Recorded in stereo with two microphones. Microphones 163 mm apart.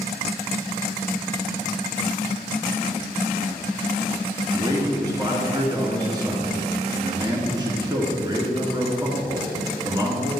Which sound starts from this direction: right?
A man speaking, at 4.5 s.